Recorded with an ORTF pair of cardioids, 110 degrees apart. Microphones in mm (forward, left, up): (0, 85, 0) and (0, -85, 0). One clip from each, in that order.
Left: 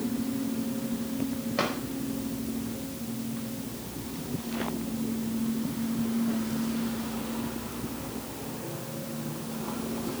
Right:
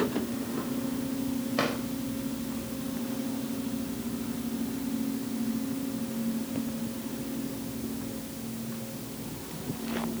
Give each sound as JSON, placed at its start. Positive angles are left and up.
{"t": 1.6, "sound": "a drawer", "azimuth_deg": -5, "distance_m": 4.5}